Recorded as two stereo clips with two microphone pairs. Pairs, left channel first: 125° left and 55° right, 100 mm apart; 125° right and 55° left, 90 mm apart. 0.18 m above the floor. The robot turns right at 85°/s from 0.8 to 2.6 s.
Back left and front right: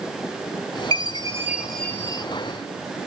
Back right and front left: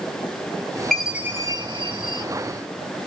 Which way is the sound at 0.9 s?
35° right.